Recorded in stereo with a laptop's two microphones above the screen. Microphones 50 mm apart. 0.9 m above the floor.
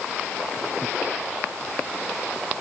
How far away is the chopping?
I don't hear chopping.